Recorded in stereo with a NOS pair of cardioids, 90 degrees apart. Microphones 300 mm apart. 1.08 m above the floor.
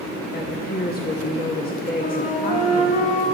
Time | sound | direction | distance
0.3 | a woman speaking | 30° left | 1.3 m
2.0 | a flute | 25° left | 1.7 m